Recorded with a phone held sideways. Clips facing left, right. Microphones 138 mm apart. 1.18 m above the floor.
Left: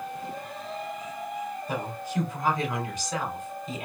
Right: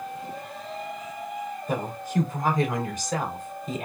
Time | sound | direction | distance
1.7 | a woman speaking | 45° right (ahead or behind) | 2.5 m